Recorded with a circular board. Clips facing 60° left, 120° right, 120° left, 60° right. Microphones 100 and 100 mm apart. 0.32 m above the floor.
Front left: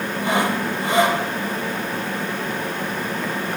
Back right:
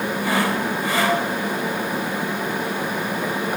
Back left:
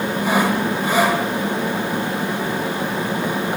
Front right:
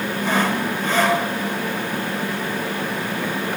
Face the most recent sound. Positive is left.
turn(degrees=55)